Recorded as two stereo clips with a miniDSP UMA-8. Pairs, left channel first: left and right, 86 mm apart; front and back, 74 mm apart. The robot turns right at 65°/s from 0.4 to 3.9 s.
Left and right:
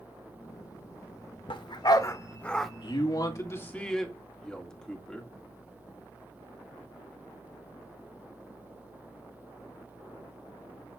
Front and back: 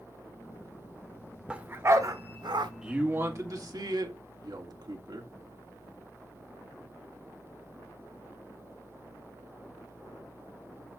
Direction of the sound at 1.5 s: 105° left.